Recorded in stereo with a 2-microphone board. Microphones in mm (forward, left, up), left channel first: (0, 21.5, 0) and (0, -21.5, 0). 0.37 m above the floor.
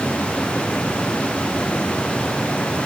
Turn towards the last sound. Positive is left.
No sound to turn to.